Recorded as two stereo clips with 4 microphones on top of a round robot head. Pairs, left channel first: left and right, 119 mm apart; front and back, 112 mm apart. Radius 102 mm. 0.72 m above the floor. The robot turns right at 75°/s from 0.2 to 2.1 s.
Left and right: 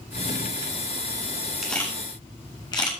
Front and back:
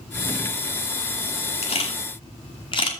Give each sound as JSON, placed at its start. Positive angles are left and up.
{"t": 1.6, "sound": "a camera shutter", "azimuth_deg": 0, "distance_m": 2.5}